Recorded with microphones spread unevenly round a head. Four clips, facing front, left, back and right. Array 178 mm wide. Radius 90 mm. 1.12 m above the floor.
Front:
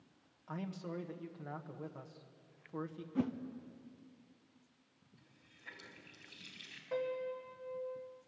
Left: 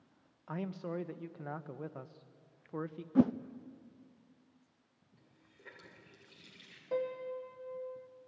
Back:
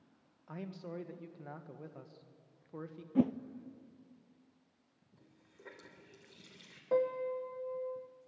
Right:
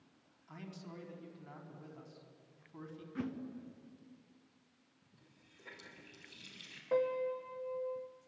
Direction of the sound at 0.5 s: 80° left.